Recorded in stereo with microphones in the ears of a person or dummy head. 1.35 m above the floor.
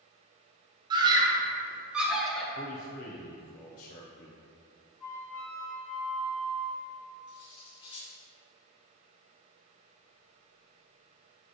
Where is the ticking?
No ticking in this recording.